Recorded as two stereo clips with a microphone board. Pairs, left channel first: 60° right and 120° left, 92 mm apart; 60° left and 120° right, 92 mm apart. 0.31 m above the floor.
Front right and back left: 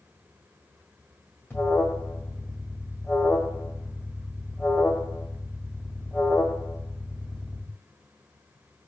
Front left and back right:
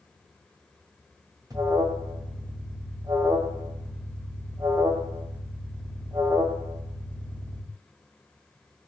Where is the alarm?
120° right, 1.5 m.